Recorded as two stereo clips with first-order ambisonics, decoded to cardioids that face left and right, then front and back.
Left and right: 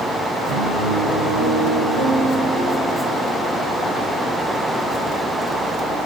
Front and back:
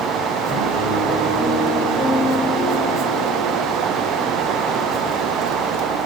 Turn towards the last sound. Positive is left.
turn(degrees=-110)